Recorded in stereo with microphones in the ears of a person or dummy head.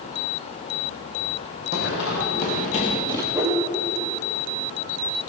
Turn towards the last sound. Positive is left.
turn(degrees=-15)  # may be behind; listen again after turning